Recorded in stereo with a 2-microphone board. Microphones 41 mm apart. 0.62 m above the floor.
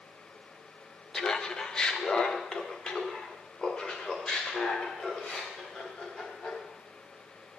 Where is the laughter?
20° left (ahead or behind), 0.7 m; by 6.6 s 25° left (ahead or behind), 3.5 m.